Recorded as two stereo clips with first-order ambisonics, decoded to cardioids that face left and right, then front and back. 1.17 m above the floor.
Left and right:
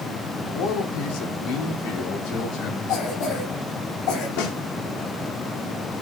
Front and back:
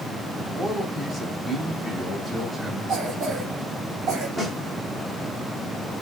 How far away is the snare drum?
About 2.5 m.